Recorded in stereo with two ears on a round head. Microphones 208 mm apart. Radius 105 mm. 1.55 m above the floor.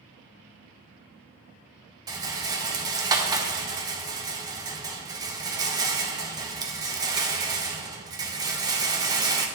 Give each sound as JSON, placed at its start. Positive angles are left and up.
{"t": 2.1, "sound": "a rattle", "side_deg": -15, "distance_m": 0.6}